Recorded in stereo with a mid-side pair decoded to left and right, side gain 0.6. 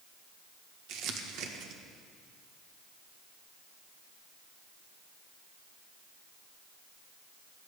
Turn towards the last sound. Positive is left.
turn(degrees=-70)